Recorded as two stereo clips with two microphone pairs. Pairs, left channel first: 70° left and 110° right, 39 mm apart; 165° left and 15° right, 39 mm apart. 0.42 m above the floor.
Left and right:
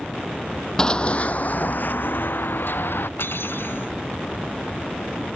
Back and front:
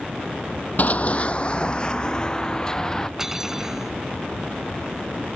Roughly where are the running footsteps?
Behind left.